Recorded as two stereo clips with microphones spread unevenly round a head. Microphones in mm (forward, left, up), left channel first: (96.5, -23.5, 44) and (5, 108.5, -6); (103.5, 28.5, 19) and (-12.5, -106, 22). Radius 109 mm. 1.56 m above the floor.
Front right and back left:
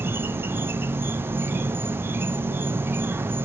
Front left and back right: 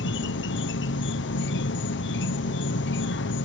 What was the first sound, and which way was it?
An insect, 55° left.